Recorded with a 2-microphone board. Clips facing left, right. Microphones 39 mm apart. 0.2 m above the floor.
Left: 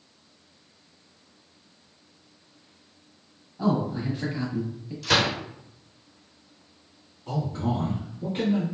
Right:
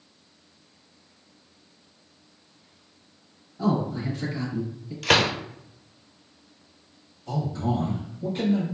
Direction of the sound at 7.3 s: 40° left (ahead or behind).